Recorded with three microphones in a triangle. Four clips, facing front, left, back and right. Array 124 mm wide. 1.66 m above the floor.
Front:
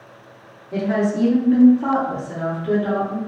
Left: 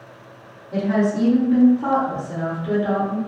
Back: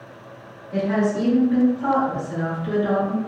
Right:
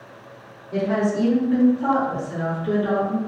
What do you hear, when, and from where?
0.7 s a woman speaking: 15° left, 1.6 m; by 3.2 s 35° left, 3 m